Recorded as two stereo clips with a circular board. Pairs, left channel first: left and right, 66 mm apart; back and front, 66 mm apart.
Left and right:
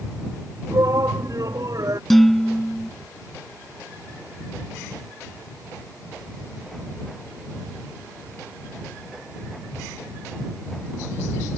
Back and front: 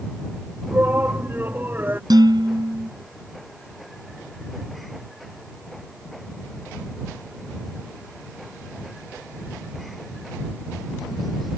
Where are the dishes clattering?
5° left.